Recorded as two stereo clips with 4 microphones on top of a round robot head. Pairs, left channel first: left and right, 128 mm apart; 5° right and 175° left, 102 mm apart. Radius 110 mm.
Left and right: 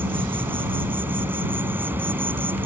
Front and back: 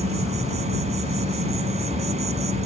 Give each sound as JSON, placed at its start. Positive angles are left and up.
{"t": 0.0, "sound": "an insect", "azimuth_deg": -165}